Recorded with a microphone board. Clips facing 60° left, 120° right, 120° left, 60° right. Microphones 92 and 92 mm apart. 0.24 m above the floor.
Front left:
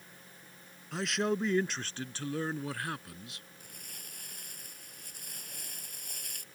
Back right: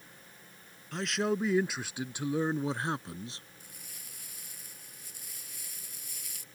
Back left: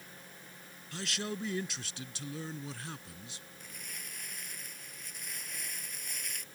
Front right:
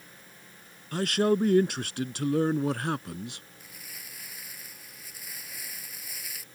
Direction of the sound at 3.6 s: 25° left.